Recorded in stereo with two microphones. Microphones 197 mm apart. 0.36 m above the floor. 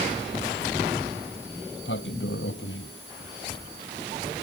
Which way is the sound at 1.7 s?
85° left.